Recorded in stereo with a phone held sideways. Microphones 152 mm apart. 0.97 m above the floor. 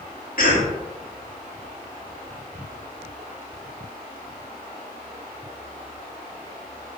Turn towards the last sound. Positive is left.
turn(degrees=65)  # may be behind; listen again after turning